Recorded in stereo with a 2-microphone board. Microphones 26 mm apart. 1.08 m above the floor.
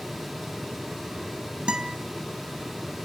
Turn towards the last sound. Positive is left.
turn(degrees=-45)  # may be behind; listen again after turning